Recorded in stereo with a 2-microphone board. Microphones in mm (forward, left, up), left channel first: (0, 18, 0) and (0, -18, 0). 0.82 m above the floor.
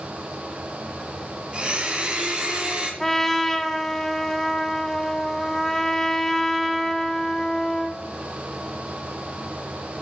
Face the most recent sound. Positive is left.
turn(degrees=10)  # may be behind; listen again after turning